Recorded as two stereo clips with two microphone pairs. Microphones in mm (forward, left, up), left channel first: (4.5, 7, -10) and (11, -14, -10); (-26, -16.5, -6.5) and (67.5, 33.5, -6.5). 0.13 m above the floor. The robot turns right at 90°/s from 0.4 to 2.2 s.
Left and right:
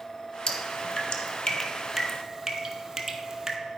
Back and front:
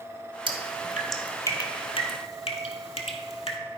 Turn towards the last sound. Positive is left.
turn(degrees=-145)